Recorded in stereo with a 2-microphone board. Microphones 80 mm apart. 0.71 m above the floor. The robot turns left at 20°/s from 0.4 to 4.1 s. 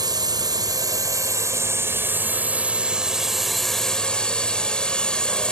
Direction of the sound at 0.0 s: 120° right.